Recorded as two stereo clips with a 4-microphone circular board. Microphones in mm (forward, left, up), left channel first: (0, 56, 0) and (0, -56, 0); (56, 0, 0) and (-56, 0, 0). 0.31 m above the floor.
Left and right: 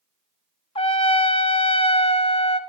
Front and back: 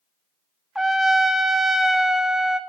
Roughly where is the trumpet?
Left.